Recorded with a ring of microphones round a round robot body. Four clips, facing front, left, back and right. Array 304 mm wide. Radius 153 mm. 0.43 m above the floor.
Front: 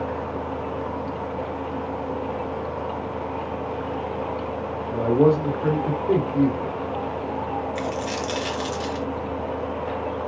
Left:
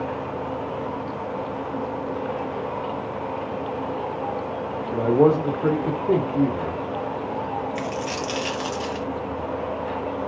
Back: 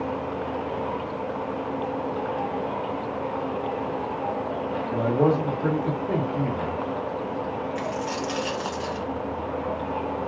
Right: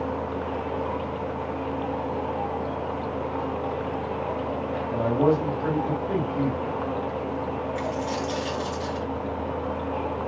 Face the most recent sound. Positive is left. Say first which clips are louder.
# even, front 1 dB
turn(degrees=55)